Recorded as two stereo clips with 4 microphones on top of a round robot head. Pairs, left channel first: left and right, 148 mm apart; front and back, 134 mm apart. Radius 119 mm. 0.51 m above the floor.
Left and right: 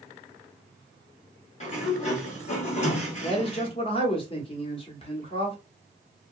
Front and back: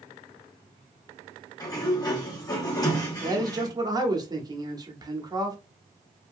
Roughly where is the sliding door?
Ahead left.